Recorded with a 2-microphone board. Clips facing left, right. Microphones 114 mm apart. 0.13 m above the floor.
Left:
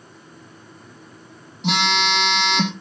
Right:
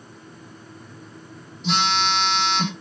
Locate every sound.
1.6 s a phone buzzing: 70° left (ahead or behind), 4 m